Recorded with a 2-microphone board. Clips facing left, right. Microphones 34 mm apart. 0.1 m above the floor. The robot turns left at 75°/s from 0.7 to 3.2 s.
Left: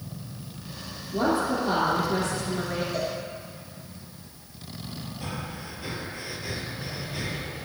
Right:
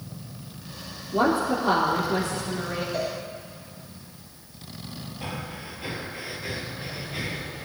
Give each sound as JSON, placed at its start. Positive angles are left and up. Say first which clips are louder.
{"t": 1.1, "sound": "a woman speaking", "louder": "right 2 dB", "azimuth_deg": -85, "distance_m": 3.0}
{"t": 2.9, "sound": "a cowbell", "louder": "right 3 dB", "side_deg": -10, "distance_m": 2.5}
{"t": 5.2, "sound": "breathing", "louder": "right 2 dB", "side_deg": -25, "distance_m": 1.3}